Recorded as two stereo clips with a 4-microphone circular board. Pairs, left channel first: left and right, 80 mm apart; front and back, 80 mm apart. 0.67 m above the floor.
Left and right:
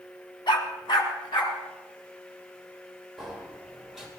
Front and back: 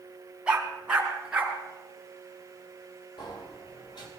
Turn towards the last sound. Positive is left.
turn(degrees=-5)